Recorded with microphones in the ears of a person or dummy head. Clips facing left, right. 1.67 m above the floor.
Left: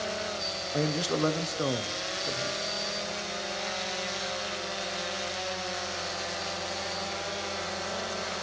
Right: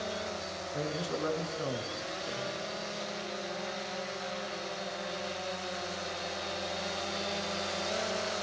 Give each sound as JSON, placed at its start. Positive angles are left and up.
{"t": 0.7, "sound": "a man speaking", "side_deg": 75, "distance_m": 0.8}